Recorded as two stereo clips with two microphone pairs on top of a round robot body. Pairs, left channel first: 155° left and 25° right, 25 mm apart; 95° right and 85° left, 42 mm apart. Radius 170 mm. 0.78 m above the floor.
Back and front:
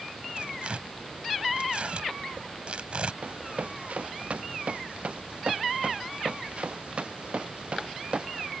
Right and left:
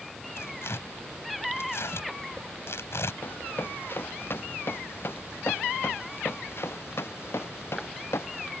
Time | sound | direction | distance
0.4 | tearing paper | 70° right | ?
3.2 | running footsteps | 55° right | ?